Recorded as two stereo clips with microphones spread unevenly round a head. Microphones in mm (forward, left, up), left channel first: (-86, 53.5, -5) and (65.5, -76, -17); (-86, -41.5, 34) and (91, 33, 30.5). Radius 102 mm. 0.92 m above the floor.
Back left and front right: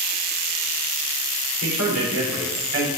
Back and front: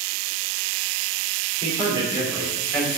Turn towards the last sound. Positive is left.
turn(degrees=-60)